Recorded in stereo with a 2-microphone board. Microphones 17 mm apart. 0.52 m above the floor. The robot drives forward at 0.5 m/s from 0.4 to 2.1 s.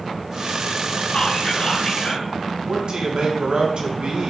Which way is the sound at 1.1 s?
60° left (ahead or behind).